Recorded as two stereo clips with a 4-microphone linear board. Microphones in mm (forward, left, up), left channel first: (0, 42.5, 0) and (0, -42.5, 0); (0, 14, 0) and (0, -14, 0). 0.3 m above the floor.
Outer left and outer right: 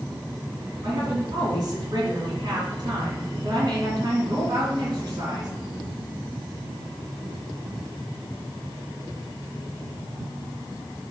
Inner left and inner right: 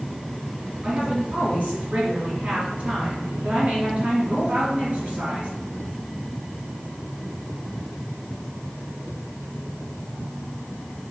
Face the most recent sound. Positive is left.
turn(degrees=-50)  # may be behind; listen again after turning